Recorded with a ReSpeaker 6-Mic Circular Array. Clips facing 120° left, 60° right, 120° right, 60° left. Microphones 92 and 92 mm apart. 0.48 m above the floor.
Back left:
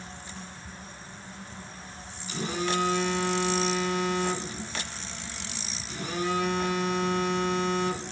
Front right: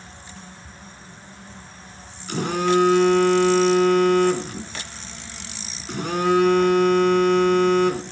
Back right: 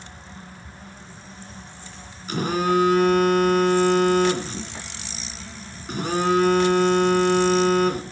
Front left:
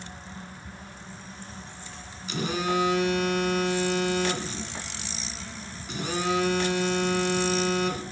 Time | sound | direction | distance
2.3 | a phone buzzing | 80° right | 2.5 m